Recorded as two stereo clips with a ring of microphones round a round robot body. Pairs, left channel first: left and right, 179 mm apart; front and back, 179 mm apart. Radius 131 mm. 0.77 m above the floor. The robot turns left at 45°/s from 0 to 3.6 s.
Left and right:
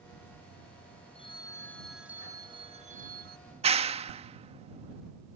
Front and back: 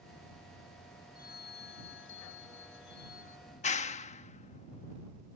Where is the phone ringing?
35° left; by 3.4 s 65° right.